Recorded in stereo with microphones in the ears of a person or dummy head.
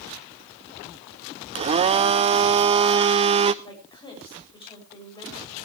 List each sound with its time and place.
1.6 s a blender: 30° right (ahead or behind), 0.5 m
3.6 s a woman speaking: 25° left (ahead or behind), 7.5 m